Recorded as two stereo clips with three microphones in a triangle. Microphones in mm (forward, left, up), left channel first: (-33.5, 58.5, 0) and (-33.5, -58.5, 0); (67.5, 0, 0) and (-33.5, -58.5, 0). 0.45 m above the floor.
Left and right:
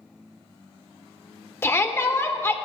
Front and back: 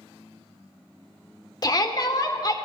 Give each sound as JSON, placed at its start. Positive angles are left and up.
{"t": 1.6, "sound": "a shout", "azimuth_deg": 40, "distance_m": 0.9}